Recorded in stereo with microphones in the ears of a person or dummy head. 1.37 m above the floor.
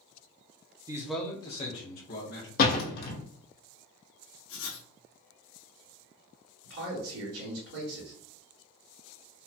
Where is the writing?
75° left (ahead or behind), 1.3 m.